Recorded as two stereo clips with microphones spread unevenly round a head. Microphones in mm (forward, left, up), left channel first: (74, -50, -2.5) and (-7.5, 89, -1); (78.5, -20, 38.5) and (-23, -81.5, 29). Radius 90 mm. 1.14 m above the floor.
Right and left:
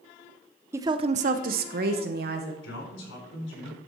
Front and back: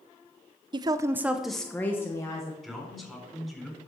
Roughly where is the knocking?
No knocking in this recording.